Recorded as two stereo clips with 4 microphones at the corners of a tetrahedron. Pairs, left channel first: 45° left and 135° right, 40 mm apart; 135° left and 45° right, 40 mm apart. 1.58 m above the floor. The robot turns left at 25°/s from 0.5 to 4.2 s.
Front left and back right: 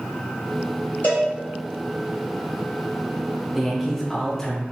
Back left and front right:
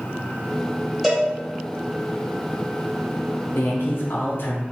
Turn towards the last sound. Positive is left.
turn(degrees=120)